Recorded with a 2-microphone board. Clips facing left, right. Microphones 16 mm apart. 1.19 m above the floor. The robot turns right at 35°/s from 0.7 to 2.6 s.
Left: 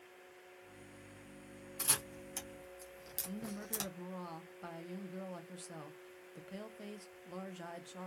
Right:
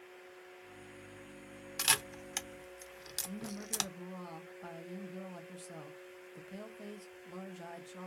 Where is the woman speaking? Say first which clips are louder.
Left 1 dB; 15° left (ahead or behind), 0.5 m.